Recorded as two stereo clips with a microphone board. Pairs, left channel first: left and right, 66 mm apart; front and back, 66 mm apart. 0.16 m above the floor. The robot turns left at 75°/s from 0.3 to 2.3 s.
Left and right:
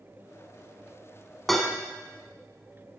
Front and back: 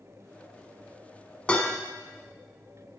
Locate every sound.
1.5 s dishes clattering: 10° left, 0.7 m; by 1.8 s 15° right, 0.7 m